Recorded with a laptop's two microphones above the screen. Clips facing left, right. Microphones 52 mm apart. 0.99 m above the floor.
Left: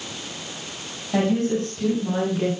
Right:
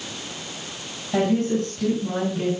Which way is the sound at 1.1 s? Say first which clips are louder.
Even; centre (ahead or behind).